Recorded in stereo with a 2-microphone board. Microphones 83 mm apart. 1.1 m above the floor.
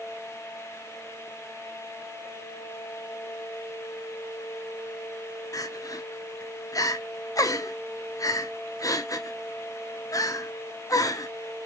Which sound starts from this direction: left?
Crying, at 5.5 s.